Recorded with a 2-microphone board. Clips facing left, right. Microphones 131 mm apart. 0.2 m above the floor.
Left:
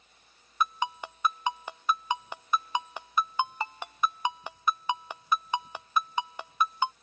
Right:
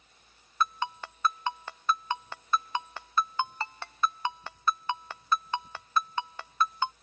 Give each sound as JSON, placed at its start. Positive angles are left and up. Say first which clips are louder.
{"t": 0.6, "sound": "a ringtone", "louder": "left 1 dB", "side_deg": 15}